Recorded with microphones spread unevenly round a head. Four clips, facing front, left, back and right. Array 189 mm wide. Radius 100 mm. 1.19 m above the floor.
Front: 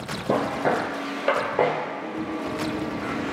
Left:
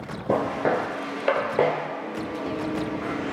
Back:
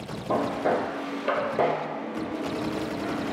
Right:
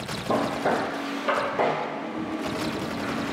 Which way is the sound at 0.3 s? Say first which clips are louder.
Left 1 dB, front 2 dB; 50° left.